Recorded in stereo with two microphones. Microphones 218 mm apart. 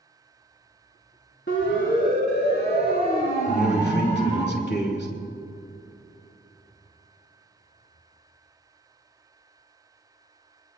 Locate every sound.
1.5 s a siren: 60° left (ahead or behind), 4 m; by 4.5 s 30° left (ahead or behind), 4.5 m
3.5 s a man speaking: 50° left (ahead or behind), 4 m